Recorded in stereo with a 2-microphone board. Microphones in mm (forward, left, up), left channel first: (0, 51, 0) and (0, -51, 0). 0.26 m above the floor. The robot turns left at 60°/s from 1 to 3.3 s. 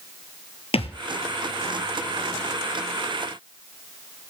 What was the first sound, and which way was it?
A thud, 85° left.